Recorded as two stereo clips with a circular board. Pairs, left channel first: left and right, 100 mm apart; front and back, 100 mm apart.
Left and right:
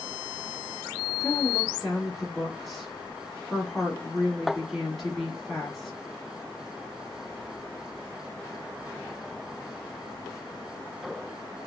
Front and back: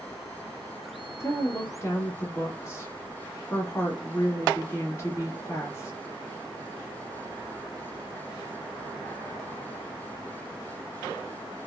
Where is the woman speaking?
Straight ahead, 1.3 m.